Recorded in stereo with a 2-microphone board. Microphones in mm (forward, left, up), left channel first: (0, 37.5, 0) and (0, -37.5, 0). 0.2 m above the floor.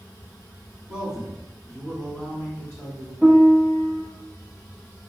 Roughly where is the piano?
Centre.